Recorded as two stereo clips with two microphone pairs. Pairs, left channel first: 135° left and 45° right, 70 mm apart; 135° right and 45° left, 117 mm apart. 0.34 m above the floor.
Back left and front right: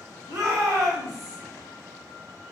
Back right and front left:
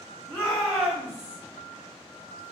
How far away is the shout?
About 1.6 m.